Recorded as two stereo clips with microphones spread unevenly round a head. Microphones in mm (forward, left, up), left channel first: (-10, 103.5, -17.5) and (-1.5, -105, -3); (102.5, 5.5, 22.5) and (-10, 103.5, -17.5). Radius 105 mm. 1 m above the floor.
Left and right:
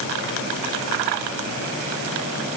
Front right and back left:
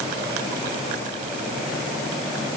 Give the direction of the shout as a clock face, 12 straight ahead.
No shout in this recording.